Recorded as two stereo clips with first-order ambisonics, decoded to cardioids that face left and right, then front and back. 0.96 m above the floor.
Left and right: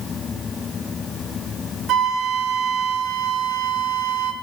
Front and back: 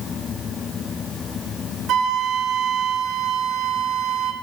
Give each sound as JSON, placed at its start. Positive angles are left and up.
{"t": 1.9, "sound": "a flute", "azimuth_deg": -135, "distance_m": 1.2}